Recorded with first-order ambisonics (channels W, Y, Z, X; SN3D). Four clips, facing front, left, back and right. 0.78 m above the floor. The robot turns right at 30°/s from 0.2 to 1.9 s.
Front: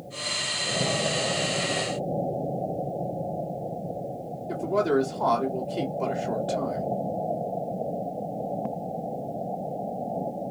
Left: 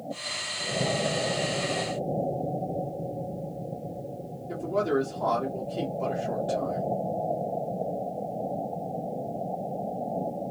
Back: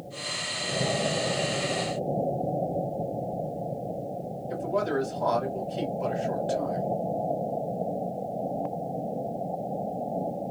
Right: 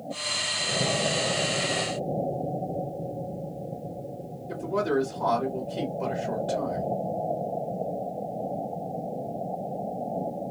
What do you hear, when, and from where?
4.5 s a man speaking: 10° right, 2 m